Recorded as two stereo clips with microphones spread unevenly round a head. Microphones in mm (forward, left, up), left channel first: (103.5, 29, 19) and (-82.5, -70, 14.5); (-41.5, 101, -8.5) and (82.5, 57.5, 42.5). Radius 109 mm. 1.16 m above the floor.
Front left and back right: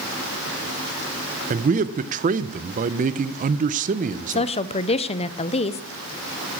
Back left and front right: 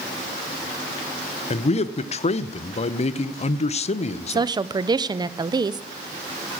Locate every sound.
1.5 s a man speaking: 155° left, 0.6 m
4.3 s a woman speaking: 55° left, 0.5 m